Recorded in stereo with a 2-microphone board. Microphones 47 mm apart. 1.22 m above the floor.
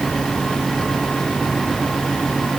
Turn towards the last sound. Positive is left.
No sound to turn to.